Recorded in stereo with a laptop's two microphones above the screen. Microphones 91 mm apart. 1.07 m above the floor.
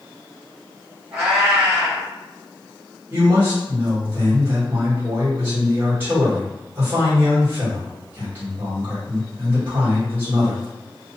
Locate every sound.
1.1 s a cat meowing: 15° right (ahead or behind), 1.6 m
3.1 s a man speaking: 20° right (ahead or behind), 1.4 m